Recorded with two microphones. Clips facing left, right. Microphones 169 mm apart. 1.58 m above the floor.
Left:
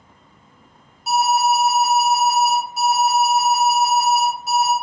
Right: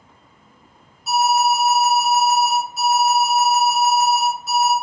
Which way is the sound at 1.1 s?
85° left.